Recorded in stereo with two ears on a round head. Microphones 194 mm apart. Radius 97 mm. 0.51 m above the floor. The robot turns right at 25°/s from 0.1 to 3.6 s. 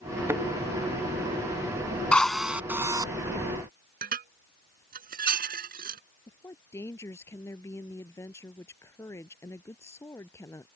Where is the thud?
10° right (ahead or behind); by 0.4 s 15° right (ahead or behind).